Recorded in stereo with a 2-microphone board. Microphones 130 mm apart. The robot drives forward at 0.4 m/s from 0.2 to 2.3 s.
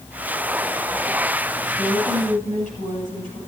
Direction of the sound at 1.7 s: 70° left (ahead or behind).